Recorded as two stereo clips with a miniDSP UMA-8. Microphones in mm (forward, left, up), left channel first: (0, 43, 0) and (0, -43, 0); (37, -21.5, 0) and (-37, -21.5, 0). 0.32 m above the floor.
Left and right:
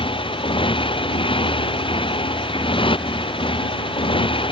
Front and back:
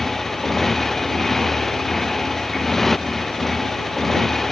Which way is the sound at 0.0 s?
85° left.